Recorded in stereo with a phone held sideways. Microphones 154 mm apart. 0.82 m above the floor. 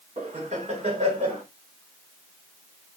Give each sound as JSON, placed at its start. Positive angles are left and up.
{"t": 0.2, "sound": "laughter", "side_deg": -50, "distance_m": 3.0}